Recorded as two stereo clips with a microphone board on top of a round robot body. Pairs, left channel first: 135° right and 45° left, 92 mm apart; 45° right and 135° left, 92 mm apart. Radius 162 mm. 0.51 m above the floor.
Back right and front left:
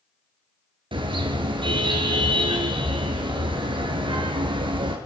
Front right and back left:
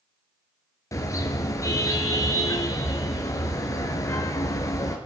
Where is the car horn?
10° left, 4.5 m.